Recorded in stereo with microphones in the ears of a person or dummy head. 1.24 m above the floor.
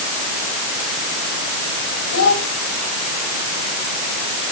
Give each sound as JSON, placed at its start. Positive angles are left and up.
{"t": 2.1, "sound": "a child speaking", "side_deg": 75, "distance_m": 5.0}